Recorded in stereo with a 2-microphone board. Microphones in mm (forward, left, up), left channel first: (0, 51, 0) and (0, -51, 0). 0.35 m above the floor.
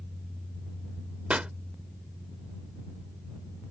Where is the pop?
10° right (ahead or behind).